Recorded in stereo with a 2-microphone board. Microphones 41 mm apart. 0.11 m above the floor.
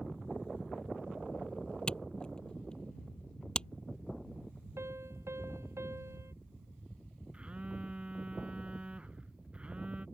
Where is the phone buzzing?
25° right (ahead or behind).